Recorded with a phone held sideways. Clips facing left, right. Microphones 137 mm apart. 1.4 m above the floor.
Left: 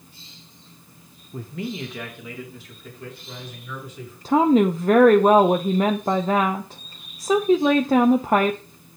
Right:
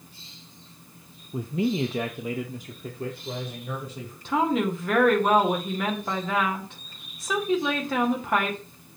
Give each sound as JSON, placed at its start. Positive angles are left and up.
{"t": 1.3, "sound": "a man speaking", "side_deg": -10, "distance_m": 0.5}
{"t": 4.2, "sound": "a woman speaking", "side_deg": 35, "distance_m": 0.7}